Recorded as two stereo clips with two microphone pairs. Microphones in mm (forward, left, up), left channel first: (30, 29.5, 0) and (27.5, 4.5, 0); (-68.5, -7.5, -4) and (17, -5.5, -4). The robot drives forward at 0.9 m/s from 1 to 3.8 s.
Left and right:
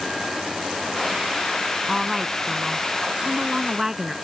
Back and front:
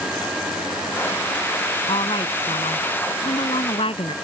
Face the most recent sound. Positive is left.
turn(degrees=-170)